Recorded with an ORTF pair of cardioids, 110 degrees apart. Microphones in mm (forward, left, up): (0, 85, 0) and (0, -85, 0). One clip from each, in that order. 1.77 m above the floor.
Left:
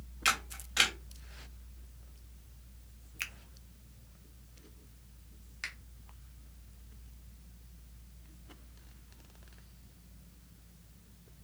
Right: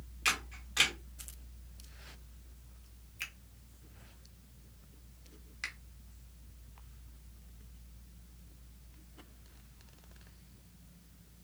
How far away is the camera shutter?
About 1.1 m.